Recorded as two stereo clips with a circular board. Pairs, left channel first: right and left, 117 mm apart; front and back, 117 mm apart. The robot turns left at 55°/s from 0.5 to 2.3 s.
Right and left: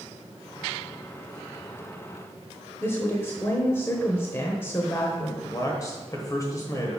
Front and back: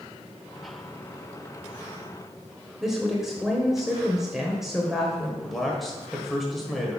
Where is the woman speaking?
100° right, 0.9 m.